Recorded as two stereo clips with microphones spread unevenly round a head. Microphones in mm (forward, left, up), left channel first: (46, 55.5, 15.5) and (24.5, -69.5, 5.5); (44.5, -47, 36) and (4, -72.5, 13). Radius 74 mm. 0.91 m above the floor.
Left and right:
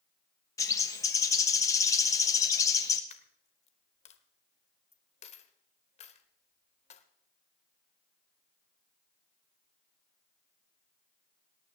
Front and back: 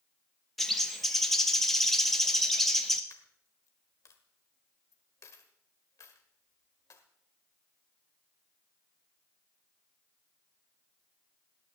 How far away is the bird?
About 1.0 m.